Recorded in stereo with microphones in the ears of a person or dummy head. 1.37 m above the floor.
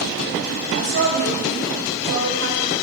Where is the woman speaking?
55° right (ahead or behind), 1.5 m.